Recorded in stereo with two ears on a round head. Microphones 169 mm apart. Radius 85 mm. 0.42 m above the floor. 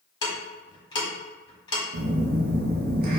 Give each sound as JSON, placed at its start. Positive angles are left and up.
{"t": 0.2, "sound": "ticking", "side_deg": 25, "distance_m": 1.4}
{"t": 1.9, "sound": "a phone buzzing", "side_deg": -55, "distance_m": 0.9}